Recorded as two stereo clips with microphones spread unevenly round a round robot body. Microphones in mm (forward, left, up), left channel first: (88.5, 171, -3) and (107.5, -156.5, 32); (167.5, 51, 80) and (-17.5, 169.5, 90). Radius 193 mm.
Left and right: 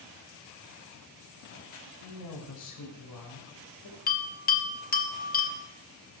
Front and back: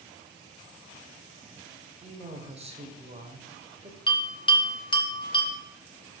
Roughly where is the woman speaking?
Left.